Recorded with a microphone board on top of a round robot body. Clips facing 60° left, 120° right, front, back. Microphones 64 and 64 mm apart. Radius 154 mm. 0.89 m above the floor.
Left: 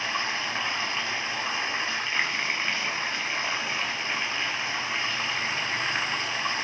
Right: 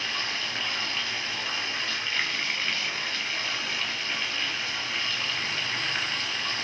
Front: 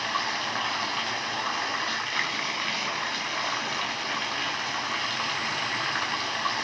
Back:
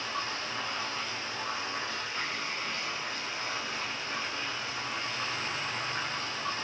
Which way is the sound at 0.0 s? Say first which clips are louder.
Left 3 dB, front 6 dB; 10° right.